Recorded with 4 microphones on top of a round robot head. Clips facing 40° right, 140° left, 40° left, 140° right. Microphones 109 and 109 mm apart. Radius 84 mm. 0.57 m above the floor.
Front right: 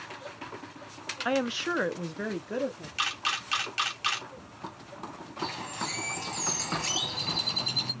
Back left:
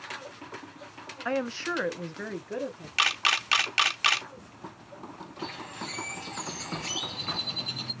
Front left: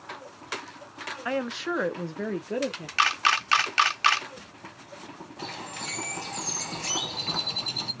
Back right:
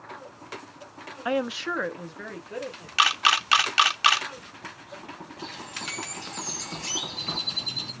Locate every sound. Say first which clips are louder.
1.2 s a woman speaking: front right 1 dB, back right 2 dB; 105° right, 0.7 m; by 2.9 s 35° left, 1.1 m
3.0 s a camera shutter: back left 5 dB, back right 1 dB; 145° left, 0.6 m
5.4 s a bird: front right 4 dB, front left 3 dB; 10° left, 1.3 m